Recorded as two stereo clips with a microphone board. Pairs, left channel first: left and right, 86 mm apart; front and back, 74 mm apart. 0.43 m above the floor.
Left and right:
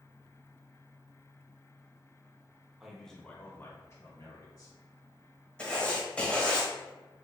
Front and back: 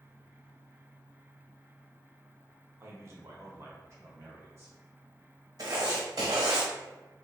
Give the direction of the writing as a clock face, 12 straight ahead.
7 o'clock.